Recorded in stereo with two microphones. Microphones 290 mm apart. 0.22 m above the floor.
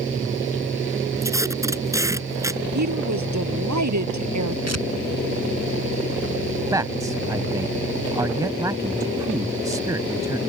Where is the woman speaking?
75° right (ahead or behind).